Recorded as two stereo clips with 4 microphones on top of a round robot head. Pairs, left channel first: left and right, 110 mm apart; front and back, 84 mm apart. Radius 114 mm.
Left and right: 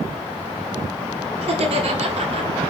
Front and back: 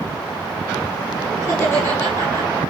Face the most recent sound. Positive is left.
turn(degrees=-60)